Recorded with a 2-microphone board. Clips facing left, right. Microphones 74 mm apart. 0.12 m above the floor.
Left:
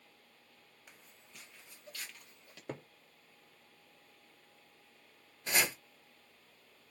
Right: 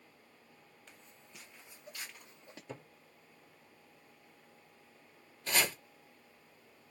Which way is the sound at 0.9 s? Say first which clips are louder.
Even; 10° left (ahead or behind).